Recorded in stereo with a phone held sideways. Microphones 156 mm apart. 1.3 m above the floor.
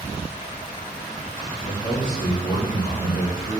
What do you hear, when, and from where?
1.6 s a man speaking: 55° left (ahead or behind), 1.9 m